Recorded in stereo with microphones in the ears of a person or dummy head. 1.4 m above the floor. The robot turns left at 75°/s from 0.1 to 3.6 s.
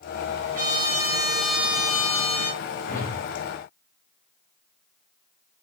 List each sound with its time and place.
0.5 s a trumpet: 25° right, 1.4 m; by 2.6 s straight behind, 1.4 m
2.9 s a whoosh: 145° left, 0.6 m; by 3.3 s 115° left, 0.6 m